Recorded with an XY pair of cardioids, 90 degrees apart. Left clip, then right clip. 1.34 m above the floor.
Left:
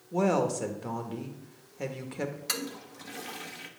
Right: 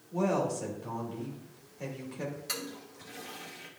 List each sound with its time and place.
0.1 s a woman speaking: 55° left, 1.7 m
2.5 s a toilet flushing: 50° left, 1.2 m